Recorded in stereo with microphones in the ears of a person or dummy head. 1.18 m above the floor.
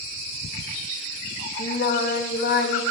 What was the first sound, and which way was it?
Singing, 60° left (ahead or behind).